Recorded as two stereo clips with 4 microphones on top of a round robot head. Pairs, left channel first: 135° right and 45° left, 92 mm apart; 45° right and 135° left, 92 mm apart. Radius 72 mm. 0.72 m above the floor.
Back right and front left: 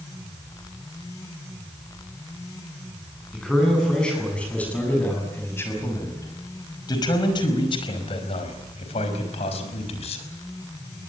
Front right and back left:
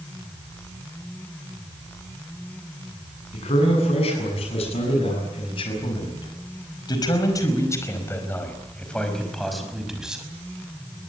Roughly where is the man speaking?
Ahead right.